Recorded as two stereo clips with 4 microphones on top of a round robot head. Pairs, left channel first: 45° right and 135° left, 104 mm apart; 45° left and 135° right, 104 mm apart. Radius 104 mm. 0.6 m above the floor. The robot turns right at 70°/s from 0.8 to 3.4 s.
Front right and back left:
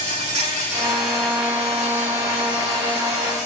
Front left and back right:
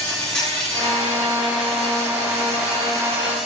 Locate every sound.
0.0 s an insect: 125° left, 4 m; by 3.5 s 55° right, 4 m